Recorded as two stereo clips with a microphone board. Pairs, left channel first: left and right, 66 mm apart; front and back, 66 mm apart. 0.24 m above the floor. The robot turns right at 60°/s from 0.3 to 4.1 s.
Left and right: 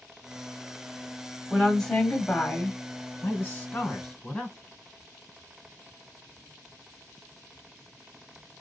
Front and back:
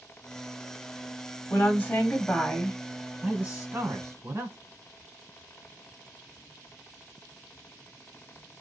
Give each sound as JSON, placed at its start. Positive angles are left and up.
{"t": 1.5, "sound": "a woman speaking", "azimuth_deg": -5, "distance_m": 1.0}
{"t": 3.2, "sound": "a man speaking", "azimuth_deg": 120, "distance_m": 1.6}